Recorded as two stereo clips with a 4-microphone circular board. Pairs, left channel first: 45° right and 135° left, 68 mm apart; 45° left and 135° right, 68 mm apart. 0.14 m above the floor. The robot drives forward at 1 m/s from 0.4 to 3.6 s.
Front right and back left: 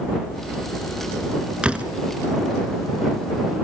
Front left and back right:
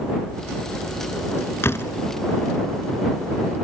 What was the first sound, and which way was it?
A door slam, 70° left.